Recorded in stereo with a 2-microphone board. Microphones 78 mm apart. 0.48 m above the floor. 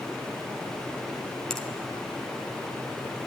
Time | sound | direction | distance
1.5 | a finger snap | 5° left (ahead or behind) | 1.9 m